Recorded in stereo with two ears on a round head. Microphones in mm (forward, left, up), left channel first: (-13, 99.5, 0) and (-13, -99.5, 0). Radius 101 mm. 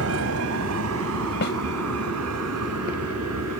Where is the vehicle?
75° right (ahead or behind); by 3.6 s 85° right.